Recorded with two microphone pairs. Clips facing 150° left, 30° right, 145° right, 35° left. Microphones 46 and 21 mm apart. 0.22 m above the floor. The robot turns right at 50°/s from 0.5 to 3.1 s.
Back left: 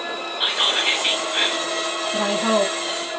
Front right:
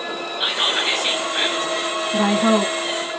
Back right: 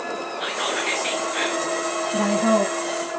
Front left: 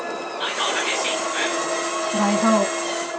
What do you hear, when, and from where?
0.4 s whispering: 85° left, 1.8 m; by 1.7 s 145° left, 1.8 m
2.1 s a woman speaking: 15° left, 1.2 m; by 2.7 s 45° left, 1.2 m